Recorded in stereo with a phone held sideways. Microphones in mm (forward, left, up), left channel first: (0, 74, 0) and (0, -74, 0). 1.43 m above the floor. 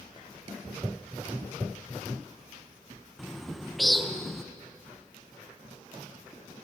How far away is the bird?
About 0.7 m.